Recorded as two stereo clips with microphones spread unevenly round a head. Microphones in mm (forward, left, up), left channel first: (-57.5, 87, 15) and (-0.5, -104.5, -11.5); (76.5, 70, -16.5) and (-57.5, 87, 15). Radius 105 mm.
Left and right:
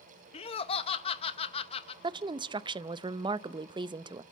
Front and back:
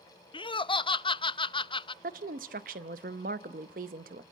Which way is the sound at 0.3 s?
40° left.